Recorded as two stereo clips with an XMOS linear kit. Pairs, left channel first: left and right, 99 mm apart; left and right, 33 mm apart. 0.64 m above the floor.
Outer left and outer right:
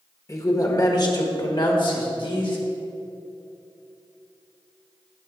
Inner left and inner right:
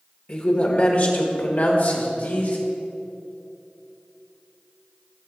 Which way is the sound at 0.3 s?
35° left (ahead or behind).